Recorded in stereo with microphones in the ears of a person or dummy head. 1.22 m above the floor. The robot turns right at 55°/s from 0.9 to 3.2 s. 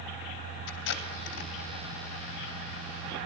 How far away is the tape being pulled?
About 2.5 m.